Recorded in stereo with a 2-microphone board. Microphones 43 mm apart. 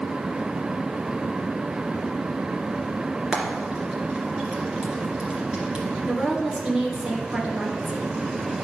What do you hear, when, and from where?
3.3 s frying: 25° right (ahead or behind), 2.0 m
6.1 s a woman speaking: 25° right (ahead or behind), 1.8 m